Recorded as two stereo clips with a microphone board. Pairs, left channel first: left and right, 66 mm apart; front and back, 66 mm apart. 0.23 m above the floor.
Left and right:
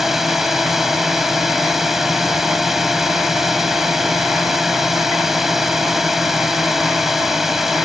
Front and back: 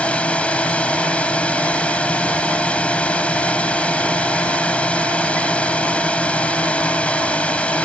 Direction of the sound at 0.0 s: 15° right.